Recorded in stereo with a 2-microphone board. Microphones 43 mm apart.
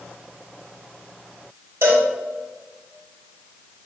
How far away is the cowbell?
About 2 m.